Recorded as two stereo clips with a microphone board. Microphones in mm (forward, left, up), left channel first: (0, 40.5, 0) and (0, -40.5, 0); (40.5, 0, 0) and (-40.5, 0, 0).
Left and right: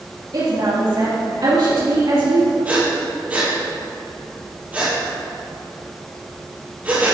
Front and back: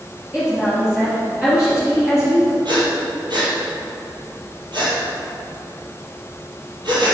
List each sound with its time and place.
0.3 s a woman speaking: 100° right, 2.5 m
2.6 s breathing: 160° right, 2.5 m